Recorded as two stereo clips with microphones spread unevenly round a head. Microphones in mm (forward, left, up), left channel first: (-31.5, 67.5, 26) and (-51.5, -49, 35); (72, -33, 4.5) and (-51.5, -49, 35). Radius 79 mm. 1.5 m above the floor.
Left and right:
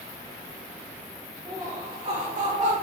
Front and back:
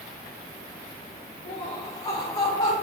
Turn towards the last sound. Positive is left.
turn(degrees=-40)